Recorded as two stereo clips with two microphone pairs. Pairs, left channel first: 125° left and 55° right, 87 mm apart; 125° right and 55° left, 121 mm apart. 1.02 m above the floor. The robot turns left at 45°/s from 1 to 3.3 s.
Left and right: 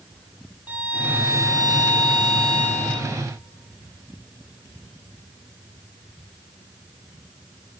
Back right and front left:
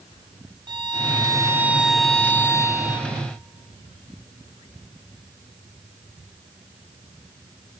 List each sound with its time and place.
0.7 s a violin: 10° left, 1.8 m; by 3.1 s 85° right, 1.8 m